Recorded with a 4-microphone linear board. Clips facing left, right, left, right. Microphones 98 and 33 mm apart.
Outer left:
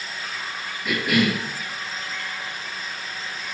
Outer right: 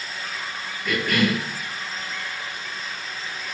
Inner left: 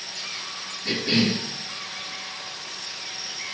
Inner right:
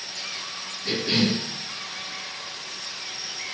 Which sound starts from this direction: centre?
A cough, at 0.8 s.